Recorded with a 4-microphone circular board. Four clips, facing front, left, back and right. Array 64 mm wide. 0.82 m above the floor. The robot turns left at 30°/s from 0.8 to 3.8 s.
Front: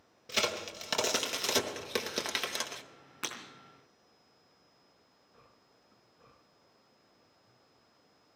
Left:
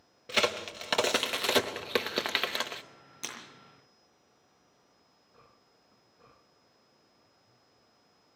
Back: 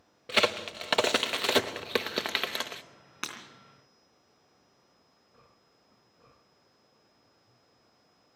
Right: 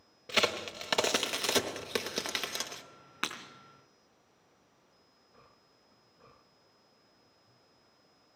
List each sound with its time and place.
0.3 s a crack: straight behind, 0.9 m; by 2.8 s 120° left, 0.9 m
3.2 s breaking glass: 105° right, 3 m; by 3.4 s 110° right, 3 m